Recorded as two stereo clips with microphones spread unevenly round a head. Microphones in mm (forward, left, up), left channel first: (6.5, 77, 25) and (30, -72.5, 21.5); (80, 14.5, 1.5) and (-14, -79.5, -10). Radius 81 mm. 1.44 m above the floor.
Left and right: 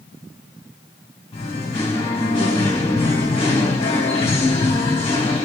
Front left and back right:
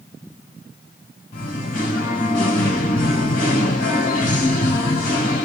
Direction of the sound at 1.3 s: 45° left.